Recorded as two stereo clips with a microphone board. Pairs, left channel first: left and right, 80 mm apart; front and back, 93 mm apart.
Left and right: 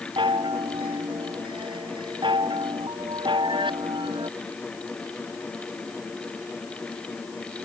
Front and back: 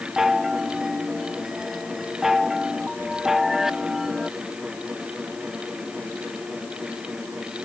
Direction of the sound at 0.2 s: 95° right.